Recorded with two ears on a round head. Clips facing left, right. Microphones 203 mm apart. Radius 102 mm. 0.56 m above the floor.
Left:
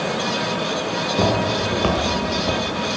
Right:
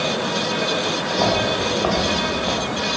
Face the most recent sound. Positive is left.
turn(degrees=45)  # may be behind; listen again after turning